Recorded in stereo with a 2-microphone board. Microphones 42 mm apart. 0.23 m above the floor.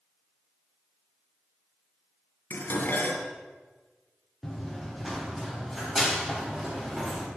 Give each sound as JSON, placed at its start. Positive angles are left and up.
{"t": 2.5, "sound": "dishes clattering", "side_deg": 55, "distance_m": 2.0}
{"t": 4.4, "sound": "running footsteps", "side_deg": 5, "distance_m": 2.5}